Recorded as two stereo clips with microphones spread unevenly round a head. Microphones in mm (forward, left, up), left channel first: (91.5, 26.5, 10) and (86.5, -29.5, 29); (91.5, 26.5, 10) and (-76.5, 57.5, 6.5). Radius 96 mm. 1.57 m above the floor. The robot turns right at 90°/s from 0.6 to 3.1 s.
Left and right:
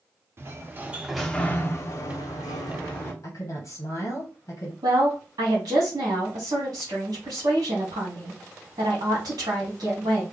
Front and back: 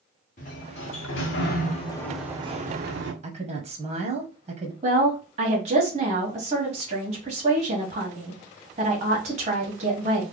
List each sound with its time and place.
0.4 s a sliding door: 60° right, 0.9 m; by 3.1 s 165° left, 0.9 m
3.2 s a woman speaking: 120° left, 0.9 m
4.8 s a woman speaking: 130° right, 1.4 m